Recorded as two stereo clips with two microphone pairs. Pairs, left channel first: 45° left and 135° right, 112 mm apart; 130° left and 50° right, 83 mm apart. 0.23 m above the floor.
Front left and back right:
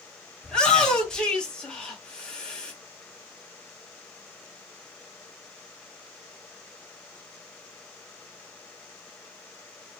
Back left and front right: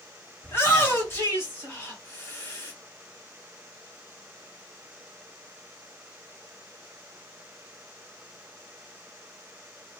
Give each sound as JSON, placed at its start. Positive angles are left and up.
{"t": 0.4, "sound": "a shout", "azimuth_deg": 120, "distance_m": 1.7}